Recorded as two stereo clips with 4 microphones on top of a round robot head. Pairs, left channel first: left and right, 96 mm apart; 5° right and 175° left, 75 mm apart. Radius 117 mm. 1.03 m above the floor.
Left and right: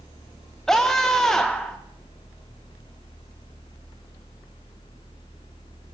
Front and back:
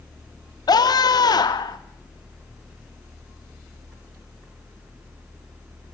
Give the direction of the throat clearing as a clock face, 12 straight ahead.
I don't hear throat clearing.